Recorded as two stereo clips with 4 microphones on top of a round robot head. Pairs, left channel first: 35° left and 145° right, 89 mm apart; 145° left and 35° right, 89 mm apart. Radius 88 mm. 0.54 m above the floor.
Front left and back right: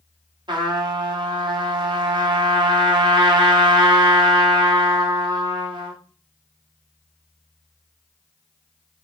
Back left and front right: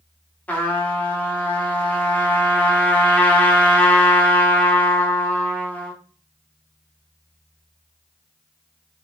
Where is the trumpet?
150° right, 1.2 m.